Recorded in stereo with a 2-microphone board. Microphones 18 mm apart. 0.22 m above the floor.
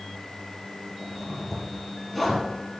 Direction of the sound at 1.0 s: 10° left (ahead or behind).